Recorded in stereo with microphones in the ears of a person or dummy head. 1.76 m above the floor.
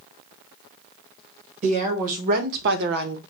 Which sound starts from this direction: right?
A woman speaking, at 1.6 s.